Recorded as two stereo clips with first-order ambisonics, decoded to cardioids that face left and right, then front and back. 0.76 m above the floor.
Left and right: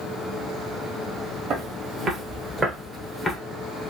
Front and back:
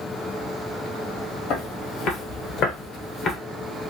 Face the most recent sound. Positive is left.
turn(degrees=40)